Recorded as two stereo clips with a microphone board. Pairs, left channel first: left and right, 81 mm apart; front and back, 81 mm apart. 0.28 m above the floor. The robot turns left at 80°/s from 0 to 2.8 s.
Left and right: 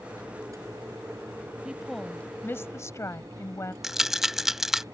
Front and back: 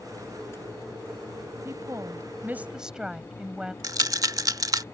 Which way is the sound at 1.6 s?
165° right.